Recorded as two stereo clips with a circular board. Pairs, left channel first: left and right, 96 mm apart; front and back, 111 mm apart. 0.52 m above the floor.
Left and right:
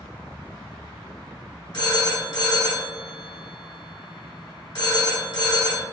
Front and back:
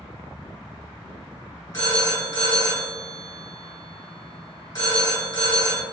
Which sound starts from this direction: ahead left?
A phone ringing, at 1.7 s.